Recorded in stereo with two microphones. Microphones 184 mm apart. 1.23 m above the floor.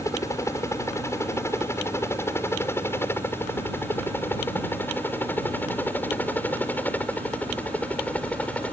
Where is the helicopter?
15° left (ahead or behind); by 8.7 s 5° left (ahead or behind).